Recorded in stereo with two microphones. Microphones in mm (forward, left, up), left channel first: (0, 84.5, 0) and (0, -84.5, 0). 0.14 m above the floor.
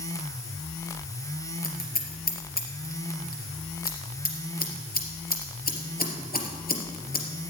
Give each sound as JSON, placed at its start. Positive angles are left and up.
{"t": 1.6, "sound": "scissors", "side_deg": 65, "distance_m": 3.0}